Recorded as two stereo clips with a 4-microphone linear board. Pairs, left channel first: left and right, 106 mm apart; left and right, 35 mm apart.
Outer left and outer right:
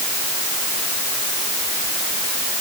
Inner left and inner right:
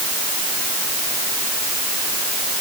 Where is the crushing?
I don't hear crushing.